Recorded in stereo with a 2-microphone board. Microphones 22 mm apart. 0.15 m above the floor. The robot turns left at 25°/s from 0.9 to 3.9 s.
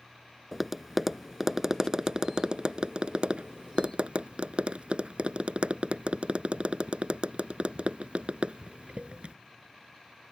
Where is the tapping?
10° right (ahead or behind); by 9.3 s 60° right (ahead or behind).